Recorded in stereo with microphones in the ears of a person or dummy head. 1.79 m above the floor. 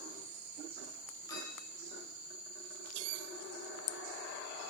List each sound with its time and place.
1.3 s a clink: 15° left (ahead or behind), 4.5 m